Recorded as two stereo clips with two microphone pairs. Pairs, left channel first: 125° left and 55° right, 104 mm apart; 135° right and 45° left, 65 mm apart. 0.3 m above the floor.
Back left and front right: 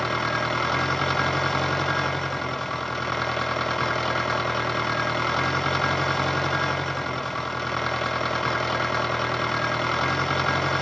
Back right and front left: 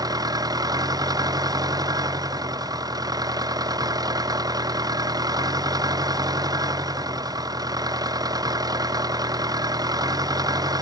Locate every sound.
0.0 s an engine running: 40° left